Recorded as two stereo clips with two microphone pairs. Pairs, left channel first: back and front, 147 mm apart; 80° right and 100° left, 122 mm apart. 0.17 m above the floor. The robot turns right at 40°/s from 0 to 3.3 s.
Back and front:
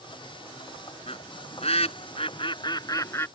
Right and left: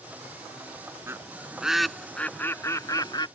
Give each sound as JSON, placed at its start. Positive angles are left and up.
{"t": 1.1, "sound": "a bird", "azimuth_deg": 155}